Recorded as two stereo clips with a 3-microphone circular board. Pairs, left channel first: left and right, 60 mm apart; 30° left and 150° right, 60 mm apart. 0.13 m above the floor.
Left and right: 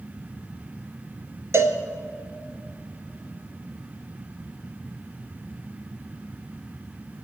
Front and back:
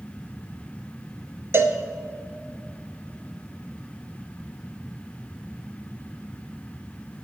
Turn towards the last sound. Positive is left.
turn(degrees=-115)